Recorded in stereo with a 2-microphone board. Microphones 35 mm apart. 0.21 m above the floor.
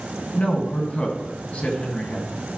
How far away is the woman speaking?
About 1.6 m.